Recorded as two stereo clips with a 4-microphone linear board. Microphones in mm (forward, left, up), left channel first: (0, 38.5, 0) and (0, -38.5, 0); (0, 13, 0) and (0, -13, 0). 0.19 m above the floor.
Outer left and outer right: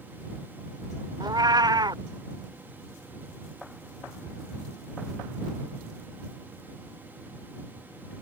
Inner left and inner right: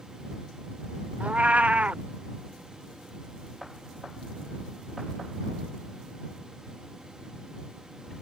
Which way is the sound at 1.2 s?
60° right (ahead or behind).